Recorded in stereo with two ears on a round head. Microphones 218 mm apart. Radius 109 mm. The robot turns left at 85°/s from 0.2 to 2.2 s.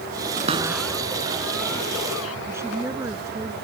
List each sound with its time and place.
0.4 s a cupboard door: 35° right (ahead or behind); by 2.4 s 60° left (ahead or behind)
2.5 s a woman speaking: 10° right (ahead or behind)